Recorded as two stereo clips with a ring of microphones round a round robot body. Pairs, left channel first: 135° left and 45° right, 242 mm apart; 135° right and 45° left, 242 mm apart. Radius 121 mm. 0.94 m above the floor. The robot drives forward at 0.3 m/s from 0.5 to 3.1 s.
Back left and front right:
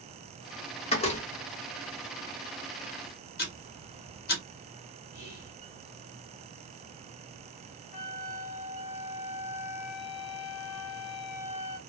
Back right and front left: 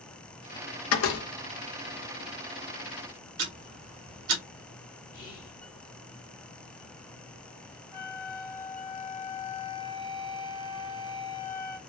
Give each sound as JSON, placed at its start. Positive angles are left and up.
{"t": 0.9, "sound": "a door slam", "azimuth_deg": -160, "distance_m": 0.8}
{"t": 3.4, "sound": "ticking", "azimuth_deg": 80, "distance_m": 1.4}
{"t": 5.1, "sound": "whispering", "azimuth_deg": 170, "distance_m": 1.9}
{"t": 7.9, "sound": "a flute", "azimuth_deg": 115, "distance_m": 1.0}